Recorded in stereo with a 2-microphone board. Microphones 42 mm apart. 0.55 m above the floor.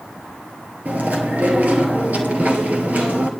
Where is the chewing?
40° right (ahead or behind), 2 m.